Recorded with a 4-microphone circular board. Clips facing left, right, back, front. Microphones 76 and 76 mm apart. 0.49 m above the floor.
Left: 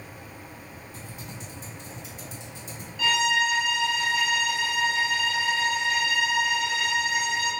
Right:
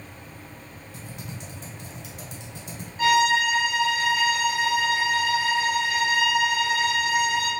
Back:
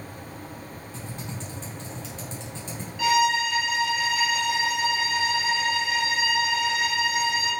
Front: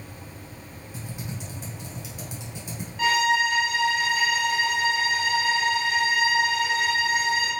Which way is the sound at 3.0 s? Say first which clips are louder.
Right 4 dB, even; 40° right.